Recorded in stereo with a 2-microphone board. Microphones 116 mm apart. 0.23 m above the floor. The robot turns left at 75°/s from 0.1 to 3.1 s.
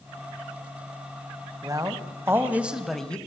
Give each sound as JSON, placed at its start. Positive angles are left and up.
{"t": 1.6, "sound": "a man speaking", "side_deg": -30, "distance_m": 1.4}